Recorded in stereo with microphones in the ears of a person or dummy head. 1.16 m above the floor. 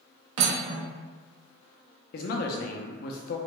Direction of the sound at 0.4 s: 65° right (ahead or behind).